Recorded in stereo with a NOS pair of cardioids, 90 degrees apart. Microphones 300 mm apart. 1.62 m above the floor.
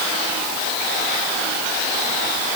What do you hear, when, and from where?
Only background noise.